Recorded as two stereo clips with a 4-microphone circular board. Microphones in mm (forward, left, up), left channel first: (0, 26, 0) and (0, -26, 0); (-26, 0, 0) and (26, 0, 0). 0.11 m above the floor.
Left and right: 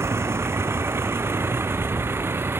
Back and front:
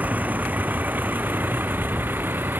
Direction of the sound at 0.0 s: 55° right.